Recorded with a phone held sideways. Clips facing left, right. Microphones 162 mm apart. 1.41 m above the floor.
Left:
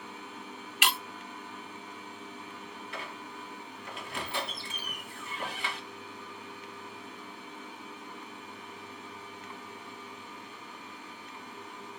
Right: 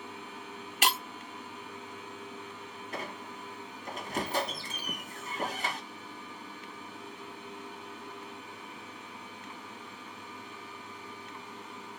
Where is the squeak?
40° right (ahead or behind), 1.2 m.